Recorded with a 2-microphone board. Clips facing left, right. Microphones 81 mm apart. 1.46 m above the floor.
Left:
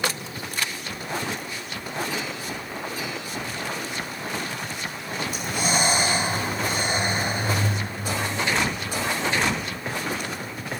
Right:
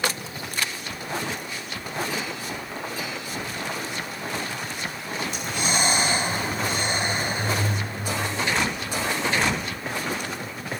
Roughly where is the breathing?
Centre.